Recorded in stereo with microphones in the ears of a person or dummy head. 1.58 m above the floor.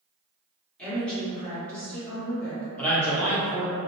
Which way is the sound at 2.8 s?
10° left (ahead or behind).